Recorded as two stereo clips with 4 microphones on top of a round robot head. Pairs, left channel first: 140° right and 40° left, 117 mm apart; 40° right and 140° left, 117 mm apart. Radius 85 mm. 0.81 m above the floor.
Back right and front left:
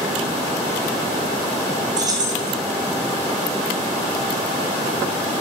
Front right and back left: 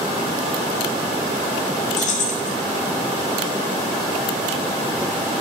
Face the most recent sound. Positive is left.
turn(degrees=-20)